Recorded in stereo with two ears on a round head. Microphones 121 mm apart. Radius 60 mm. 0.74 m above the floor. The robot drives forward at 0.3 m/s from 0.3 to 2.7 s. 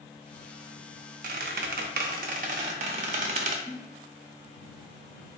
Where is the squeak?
65° right (ahead or behind), 0.5 m; by 3.5 s 55° right (ahead or behind), 0.6 m.